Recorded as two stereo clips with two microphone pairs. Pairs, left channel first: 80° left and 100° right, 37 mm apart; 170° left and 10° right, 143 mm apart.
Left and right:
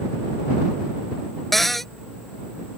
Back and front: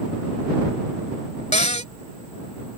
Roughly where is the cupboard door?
Behind.